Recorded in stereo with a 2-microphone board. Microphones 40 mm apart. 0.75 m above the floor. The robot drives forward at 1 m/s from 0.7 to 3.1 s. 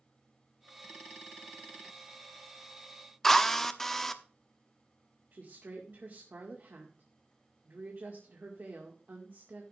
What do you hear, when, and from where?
3.2 s a drill: 5° left (ahead or behind), 0.8 m
5.3 s a woman speaking: 50° right (ahead or behind), 2.0 m